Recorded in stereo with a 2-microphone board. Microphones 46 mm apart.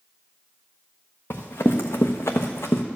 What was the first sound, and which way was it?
Running footsteps, 70° left (ahead or behind).